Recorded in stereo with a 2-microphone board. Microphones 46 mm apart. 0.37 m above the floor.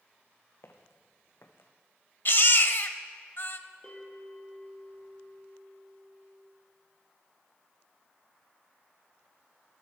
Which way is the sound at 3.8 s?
20° left (ahead or behind).